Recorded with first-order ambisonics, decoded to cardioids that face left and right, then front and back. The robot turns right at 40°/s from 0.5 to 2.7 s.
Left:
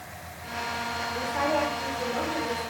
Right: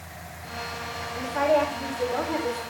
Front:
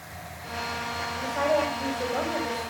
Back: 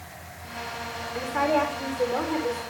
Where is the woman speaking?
155° left, 3.5 m; by 2.6 s 150° right, 3.5 m.